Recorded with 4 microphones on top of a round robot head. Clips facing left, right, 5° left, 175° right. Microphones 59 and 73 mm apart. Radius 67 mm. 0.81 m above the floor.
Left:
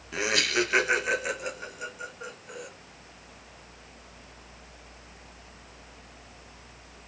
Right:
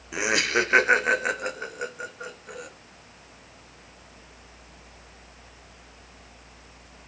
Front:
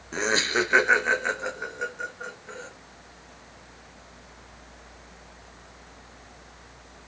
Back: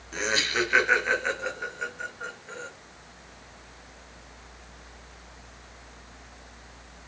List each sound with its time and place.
0.1 s laughter: 20° right, 0.5 m; by 2.7 s 70° right, 1.8 m